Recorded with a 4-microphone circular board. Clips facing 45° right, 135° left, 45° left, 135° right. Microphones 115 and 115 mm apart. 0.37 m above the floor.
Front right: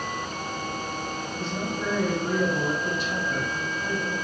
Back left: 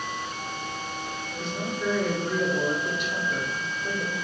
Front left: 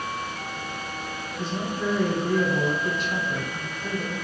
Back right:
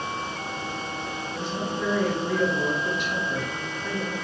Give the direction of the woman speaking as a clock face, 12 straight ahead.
12 o'clock.